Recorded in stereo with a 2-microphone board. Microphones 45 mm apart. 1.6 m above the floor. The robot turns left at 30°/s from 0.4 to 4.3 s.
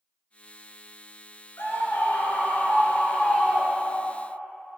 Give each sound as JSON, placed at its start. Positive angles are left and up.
{"t": 1.6, "sound": "a scream", "azimuth_deg": 75, "distance_m": 2.5}